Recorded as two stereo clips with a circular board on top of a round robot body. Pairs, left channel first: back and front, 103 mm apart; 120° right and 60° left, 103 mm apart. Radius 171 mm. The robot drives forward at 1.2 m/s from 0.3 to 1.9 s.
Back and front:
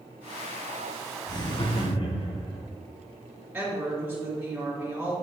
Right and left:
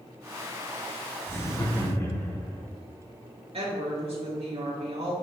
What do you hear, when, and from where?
1.3 s laughter: 170° right, 1.0 m; by 2.6 s 175° right, 1.6 m
3.5 s a woman speaking: 75° left, 2.5 m